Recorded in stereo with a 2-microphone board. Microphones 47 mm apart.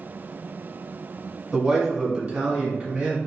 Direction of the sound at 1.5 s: Centre (ahead or behind).